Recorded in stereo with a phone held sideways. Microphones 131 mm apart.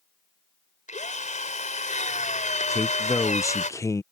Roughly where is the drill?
Left.